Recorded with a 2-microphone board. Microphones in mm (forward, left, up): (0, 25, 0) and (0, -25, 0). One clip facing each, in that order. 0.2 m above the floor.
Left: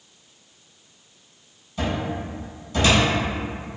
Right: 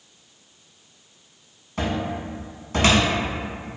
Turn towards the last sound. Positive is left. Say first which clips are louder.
# even
turn(degrees=-55)  # may be behind; listen again after turning